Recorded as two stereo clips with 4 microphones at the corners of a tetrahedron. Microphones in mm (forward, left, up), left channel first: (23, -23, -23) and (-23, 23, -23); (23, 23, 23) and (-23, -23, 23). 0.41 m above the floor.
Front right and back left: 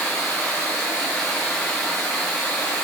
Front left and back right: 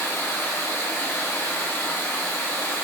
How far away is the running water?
About 1.0 m.